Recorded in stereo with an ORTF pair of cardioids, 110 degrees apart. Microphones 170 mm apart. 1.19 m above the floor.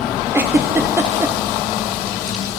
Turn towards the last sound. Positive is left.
turn(degrees=-15)